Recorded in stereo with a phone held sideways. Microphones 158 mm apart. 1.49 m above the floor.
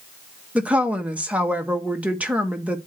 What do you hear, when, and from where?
0.6 s a woman speaking: 10° right (ahead or behind), 1.3 m